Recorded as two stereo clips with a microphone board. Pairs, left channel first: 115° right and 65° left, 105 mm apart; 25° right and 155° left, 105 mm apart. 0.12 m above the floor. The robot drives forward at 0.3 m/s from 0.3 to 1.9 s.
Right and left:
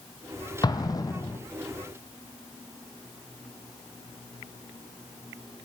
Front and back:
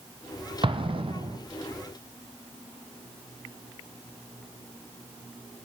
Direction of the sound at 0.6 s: 165° right.